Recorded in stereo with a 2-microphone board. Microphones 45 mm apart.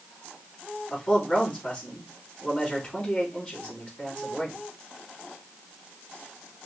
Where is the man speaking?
30° left (ahead or behind), 4 m.